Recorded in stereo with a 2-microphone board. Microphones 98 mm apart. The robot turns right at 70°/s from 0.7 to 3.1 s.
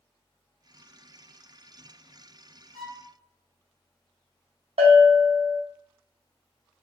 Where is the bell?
75° right (ahead or behind), 0.6 m.